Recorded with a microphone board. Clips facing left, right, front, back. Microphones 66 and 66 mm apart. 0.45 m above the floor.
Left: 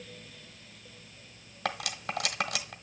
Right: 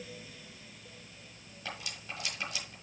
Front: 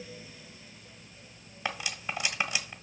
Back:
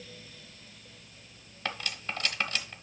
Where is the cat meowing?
No cat meowing in this recording.